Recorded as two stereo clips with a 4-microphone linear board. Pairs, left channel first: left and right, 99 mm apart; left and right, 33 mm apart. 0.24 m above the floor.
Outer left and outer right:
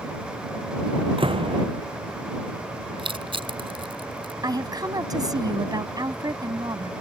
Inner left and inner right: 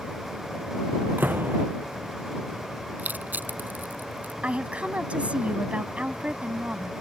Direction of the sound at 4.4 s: 40° right (ahead or behind).